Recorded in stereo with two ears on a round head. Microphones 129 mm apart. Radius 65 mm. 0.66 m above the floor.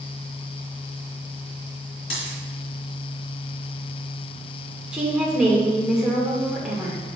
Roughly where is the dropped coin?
Left.